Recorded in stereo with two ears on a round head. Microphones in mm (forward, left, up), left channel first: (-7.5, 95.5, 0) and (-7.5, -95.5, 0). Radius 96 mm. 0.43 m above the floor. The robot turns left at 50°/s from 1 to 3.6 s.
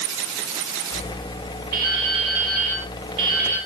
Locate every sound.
1.7 s dripping: 40° right, 6 m; by 3.6 s 135° right, 6 m